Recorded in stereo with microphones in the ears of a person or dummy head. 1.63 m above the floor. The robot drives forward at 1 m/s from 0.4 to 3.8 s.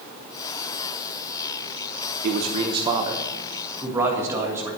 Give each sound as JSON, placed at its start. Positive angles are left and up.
{"t": 2.2, "sound": "a man speaking", "side_deg": -45, "distance_m": 0.7}